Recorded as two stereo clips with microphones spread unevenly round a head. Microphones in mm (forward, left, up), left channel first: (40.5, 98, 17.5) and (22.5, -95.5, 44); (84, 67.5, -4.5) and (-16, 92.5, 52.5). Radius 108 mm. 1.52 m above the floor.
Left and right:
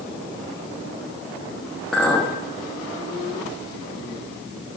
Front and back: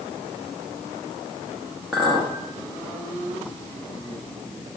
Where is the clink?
175° right, 0.9 m.